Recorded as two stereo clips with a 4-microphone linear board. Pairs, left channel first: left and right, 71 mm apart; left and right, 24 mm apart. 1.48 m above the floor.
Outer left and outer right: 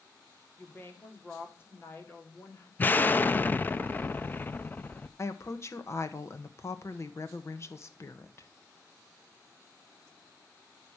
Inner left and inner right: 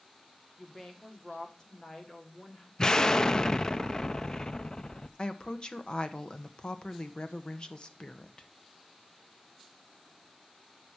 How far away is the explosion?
About 0.6 m.